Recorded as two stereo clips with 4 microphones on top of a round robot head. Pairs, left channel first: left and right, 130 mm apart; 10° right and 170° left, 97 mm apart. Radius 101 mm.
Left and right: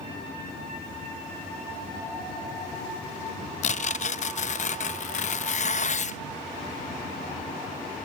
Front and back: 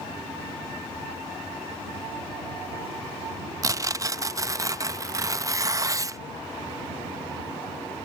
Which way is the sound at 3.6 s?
115° left.